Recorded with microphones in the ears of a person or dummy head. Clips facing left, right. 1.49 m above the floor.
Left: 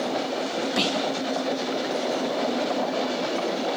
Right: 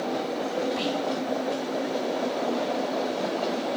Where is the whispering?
75° left (ahead or behind), 1.4 m.